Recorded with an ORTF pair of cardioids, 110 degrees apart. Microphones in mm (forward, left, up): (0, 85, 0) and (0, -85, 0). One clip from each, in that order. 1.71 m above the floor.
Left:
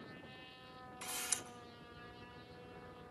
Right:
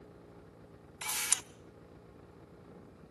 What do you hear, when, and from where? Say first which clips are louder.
1.0 s a camera shutter: right 7 dB; 45° right, 0.8 m